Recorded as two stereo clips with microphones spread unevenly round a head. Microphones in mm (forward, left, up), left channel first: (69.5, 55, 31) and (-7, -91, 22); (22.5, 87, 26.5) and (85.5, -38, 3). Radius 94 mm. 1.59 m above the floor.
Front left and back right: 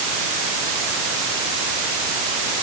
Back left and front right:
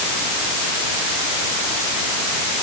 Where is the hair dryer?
No hair dryer in this recording.